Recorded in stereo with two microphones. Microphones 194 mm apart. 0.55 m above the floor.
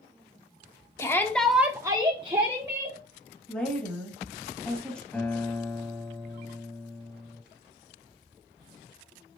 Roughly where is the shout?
Centre.